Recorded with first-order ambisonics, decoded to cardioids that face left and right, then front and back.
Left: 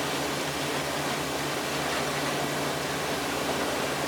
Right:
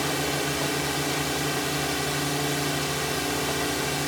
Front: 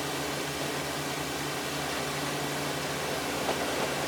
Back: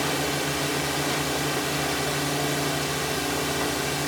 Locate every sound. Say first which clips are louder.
0.0 s a drone: right 2 dB, back 6 dB; 140° right